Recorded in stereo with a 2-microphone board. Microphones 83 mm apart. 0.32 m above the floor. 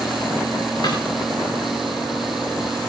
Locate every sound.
0.8 s a snare drum: 60° left (ahead or behind), 7 m